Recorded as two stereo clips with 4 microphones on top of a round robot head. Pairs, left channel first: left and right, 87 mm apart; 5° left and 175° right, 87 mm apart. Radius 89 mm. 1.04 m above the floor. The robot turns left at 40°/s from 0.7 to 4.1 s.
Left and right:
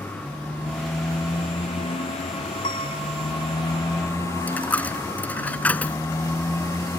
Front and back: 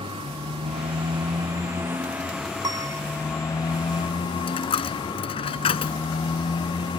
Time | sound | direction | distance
0.0 | a motorcycle | 165° left | ?
2.6 | a piano | 140° left | ?
4.5 | a dropped coin | 15° left | ?